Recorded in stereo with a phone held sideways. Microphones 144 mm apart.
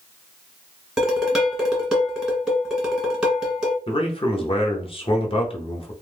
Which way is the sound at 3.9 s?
40° left (ahead or behind).